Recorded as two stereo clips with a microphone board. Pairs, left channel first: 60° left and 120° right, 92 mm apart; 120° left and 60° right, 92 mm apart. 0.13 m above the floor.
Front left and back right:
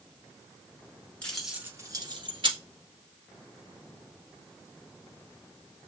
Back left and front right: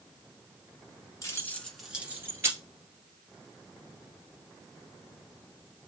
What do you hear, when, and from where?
1.2 s keys jangling: 130° left, 1.2 m; by 2.6 s 115° right, 2.0 m